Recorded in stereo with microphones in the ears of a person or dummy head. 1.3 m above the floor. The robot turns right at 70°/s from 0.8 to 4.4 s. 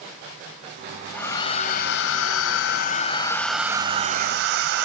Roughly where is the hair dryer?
Ahead.